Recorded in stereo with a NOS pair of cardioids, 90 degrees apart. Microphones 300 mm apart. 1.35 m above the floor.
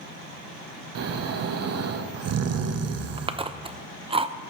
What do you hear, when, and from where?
0.9 s snoring: 55° right, 1.1 m
3.2 s chewing: 20° right, 0.7 m